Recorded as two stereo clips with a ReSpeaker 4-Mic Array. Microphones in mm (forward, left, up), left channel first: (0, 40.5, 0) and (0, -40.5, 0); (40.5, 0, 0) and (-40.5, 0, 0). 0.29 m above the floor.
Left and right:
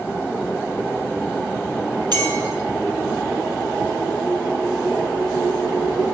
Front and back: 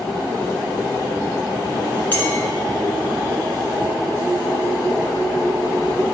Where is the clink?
65° right, 2 m.